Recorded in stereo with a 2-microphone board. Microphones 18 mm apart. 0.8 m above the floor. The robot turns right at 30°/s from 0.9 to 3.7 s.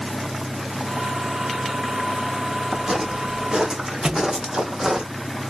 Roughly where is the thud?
Right.